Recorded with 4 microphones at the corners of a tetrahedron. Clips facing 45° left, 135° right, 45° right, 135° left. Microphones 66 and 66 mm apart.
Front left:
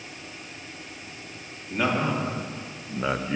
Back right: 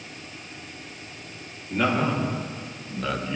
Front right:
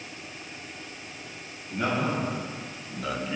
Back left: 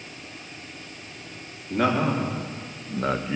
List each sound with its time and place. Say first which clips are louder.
1.7 s a man speaking: back right 2 dB, back left 5 dB; 130° left, 3 m; by 3.4 s 80° left, 0.8 m